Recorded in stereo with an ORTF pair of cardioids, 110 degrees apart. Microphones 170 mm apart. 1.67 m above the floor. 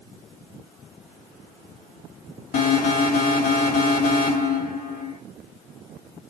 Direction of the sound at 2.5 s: 60° left.